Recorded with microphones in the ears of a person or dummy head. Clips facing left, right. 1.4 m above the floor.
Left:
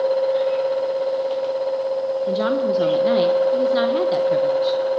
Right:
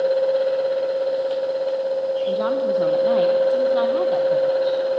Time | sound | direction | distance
2.3 | a woman speaking | 25° left (ahead or behind) | 1.2 m